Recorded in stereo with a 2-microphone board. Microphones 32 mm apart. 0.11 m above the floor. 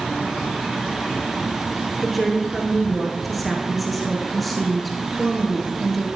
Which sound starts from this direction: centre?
A woman speaking, at 2.0 s.